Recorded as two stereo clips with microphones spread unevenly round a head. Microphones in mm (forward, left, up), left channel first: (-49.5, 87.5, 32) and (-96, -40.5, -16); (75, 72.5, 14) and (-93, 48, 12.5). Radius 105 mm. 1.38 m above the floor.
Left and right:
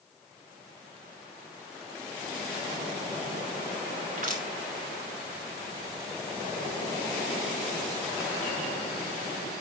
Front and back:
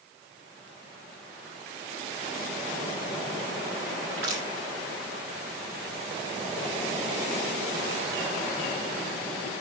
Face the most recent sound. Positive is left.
turn(degrees=-140)